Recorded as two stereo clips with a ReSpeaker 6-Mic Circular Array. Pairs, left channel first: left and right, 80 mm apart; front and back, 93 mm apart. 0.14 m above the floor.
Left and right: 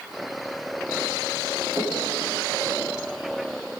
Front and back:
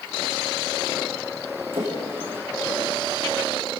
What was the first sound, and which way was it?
A splash, 160° right.